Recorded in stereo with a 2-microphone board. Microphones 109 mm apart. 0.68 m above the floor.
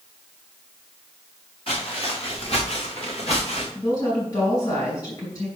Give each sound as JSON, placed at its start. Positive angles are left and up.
{"t": 1.7, "sound": "footsteps", "side_deg": 55, "distance_m": 4.0}
{"t": 3.8, "sound": "a woman speaking", "side_deg": 35, "distance_m": 5.0}